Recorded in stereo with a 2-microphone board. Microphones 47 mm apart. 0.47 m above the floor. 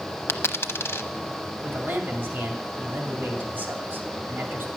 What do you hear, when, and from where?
0.3 s a dropped coin: 60° left (ahead or behind), 0.7 m
1.6 s a man speaking: 40° right (ahead or behind), 2.5 m